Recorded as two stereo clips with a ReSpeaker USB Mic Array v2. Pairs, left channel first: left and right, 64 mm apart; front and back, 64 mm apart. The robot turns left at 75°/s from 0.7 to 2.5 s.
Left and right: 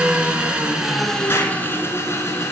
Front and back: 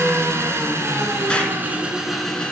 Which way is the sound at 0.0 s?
160° right.